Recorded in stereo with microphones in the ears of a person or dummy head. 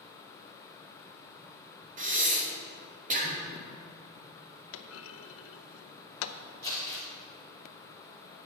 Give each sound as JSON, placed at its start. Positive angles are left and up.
{"t": 2.0, "sound": "breathing", "side_deg": -35, "distance_m": 0.7}
{"t": 4.7, "sound": "a clunk", "side_deg": 75, "distance_m": 0.6}
{"t": 6.6, "sound": "crumpling", "side_deg": -40, "distance_m": 3.0}